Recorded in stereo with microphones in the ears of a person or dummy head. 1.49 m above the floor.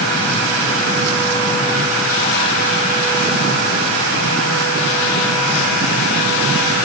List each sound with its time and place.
Only background noise.